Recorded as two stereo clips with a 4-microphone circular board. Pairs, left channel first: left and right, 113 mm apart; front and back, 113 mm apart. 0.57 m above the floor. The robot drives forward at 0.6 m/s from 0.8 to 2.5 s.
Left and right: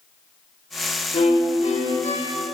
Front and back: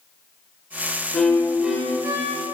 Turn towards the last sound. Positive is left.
turn(degrees=125)